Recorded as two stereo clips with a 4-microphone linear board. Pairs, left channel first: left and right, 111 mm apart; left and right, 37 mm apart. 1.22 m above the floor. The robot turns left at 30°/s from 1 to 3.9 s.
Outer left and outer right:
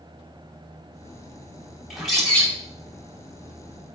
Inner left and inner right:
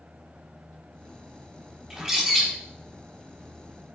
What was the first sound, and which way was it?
A bird, 5° right (ahead or behind).